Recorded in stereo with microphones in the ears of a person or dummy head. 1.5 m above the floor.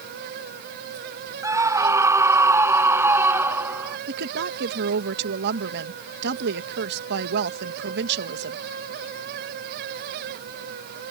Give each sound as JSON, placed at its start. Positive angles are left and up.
{"t": 1.4, "sound": "a scream", "side_deg": -25}
{"t": 4.1, "sound": "a woman speaking", "side_deg": -55}